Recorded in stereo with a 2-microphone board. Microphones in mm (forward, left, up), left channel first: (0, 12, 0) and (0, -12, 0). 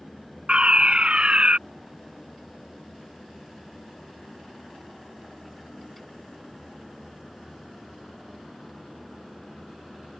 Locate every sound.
0.5 s a fire alarm: 45° right (ahead or behind)